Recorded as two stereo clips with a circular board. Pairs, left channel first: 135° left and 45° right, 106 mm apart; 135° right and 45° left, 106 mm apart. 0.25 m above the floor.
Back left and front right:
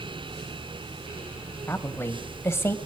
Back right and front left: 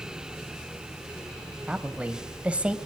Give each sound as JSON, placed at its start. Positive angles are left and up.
{"t": 1.7, "sound": "a woman speaking", "azimuth_deg": 110, "distance_m": 1.4}